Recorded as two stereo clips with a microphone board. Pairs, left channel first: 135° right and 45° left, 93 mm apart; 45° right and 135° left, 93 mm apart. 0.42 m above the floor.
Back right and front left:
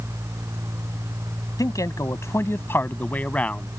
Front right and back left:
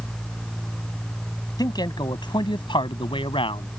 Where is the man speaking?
85° right; by 3.7 s 55° right.